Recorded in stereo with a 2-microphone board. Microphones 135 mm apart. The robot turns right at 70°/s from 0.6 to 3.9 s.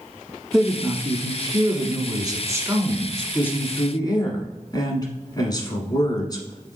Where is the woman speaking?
175° right, 1.2 m; by 6.8 s 55° left, 1.2 m.